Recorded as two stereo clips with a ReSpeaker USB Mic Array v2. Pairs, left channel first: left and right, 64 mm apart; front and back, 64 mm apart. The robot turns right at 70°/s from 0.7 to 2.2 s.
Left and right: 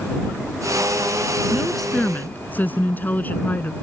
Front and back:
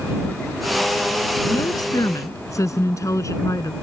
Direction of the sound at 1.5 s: 20° right.